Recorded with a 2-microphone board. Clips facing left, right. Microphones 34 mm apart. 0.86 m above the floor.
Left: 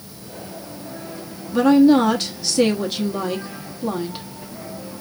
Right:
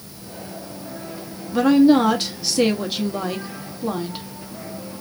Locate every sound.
1.5 s a woman speaking: 5° right (ahead or behind), 1.1 m